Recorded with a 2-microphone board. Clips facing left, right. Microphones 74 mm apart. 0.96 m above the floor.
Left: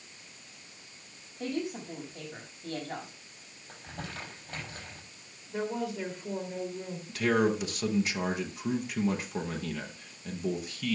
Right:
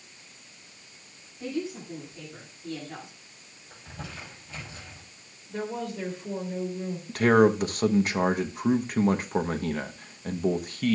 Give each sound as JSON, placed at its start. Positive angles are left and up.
{"t": 1.4, "sound": "a woman speaking", "side_deg": 65, "distance_m": 6.0}
{"t": 3.7, "sound": "crumpling", "side_deg": 55, "distance_m": 6.5}
{"t": 5.5, "sound": "a woman speaking", "side_deg": 5, "distance_m": 3.0}
{"t": 7.1, "sound": "a man speaking", "side_deg": -45, "distance_m": 0.9}